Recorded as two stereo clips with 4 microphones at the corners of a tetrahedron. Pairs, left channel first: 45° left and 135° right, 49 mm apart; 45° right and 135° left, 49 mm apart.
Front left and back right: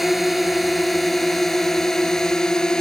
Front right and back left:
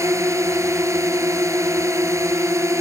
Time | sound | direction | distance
0.0 | a drone | 140° left | ?